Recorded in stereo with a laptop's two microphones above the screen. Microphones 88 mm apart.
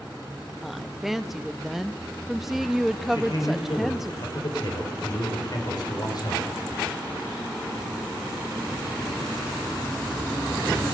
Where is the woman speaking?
5° right (ahead or behind), 0.9 m.